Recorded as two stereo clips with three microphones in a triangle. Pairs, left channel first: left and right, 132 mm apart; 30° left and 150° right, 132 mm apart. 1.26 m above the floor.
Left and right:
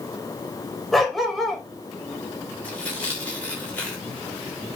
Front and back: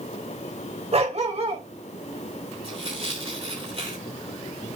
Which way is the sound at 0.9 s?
Straight behind.